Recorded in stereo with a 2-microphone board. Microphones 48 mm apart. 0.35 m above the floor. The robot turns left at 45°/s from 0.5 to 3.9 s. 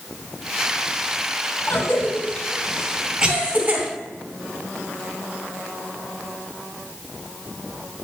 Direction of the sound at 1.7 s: 55° left (ahead or behind).